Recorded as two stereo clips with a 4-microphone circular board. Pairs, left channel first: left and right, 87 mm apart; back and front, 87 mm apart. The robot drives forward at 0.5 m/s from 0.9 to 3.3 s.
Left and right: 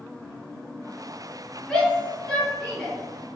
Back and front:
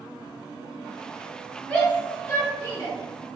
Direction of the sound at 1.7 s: 145° left.